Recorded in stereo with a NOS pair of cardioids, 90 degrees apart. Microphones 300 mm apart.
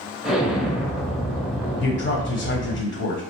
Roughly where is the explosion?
Ahead.